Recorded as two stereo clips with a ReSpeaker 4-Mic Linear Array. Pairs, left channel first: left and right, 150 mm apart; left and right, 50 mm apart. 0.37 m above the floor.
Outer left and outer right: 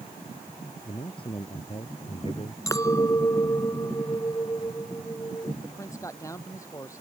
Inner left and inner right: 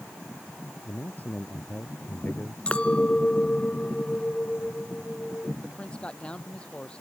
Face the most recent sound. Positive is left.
turn(degrees=20)  # may be behind; listen again after turning